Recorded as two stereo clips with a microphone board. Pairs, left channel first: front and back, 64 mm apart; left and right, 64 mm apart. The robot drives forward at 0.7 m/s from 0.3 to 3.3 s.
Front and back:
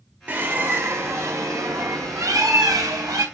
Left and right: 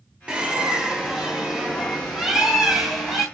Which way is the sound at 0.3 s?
145° right.